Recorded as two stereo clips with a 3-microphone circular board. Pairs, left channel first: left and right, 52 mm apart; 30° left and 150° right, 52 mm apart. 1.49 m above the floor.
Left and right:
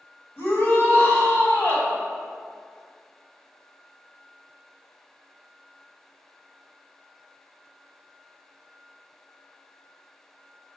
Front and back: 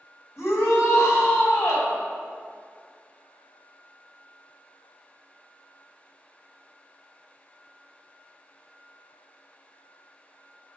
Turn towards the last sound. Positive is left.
turn(degrees=65)